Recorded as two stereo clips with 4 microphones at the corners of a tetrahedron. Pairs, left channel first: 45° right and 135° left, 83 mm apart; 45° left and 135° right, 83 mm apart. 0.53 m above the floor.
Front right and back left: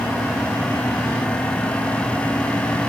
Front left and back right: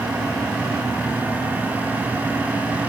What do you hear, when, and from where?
Only background noise.